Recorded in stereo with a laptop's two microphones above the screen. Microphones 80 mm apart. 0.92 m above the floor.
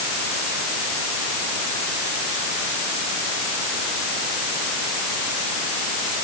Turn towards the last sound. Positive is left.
No sound to turn to.